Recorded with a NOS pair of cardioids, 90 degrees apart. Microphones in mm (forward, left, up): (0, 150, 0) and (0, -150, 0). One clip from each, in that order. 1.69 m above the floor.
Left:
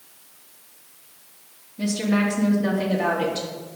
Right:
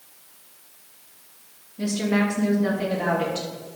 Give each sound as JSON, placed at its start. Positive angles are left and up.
{"t": 1.8, "sound": "a woman speaking", "azimuth_deg": 10, "distance_m": 3.5}